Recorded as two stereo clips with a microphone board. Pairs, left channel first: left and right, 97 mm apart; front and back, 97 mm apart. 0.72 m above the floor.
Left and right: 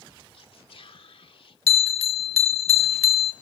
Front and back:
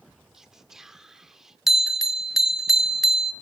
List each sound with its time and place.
0.3 s whispering: 95° left, 1.8 m
1.7 s a bell: 95° left, 1.2 m